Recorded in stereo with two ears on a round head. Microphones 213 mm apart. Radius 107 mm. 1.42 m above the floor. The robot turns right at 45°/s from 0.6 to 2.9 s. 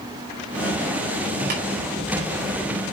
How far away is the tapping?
About 6 m.